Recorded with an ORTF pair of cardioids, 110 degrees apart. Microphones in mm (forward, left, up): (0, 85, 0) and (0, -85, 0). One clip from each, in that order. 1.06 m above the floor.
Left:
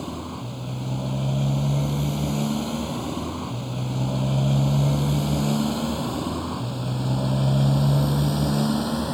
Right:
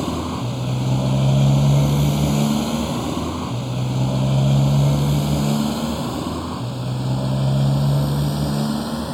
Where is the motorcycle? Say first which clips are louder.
Right 8 dB; 50° right; by 9.2 s straight ahead.